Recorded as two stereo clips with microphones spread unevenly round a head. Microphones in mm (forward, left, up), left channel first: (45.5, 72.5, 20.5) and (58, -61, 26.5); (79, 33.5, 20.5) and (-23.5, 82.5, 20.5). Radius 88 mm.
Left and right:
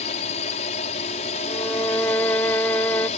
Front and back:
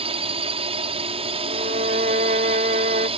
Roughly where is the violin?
Behind.